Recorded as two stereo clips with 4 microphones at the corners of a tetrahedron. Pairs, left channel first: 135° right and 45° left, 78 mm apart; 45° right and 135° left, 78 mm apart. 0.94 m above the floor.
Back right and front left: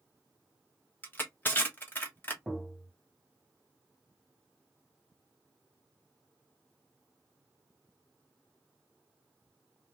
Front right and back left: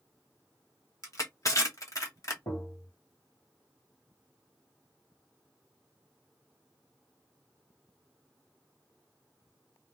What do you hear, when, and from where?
1.0 s crushing: 75° right, 1.2 m
2.5 s tapping: 40° right, 1.6 m